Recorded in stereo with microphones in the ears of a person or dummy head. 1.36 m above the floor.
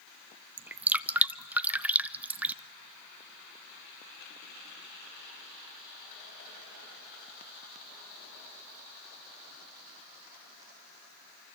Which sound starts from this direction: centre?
Dripping, at 0.6 s.